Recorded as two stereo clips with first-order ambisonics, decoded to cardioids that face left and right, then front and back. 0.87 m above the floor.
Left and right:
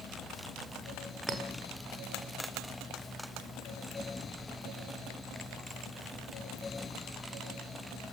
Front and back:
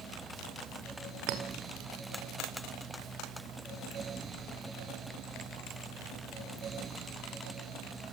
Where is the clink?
160° right, 1.9 m.